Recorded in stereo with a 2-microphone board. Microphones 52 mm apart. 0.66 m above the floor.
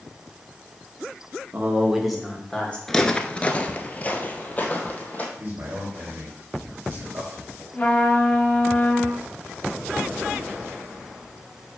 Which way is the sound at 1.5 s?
35° right (ahead or behind).